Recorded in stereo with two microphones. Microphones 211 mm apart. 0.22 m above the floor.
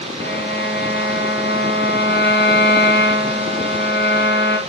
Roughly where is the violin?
Left.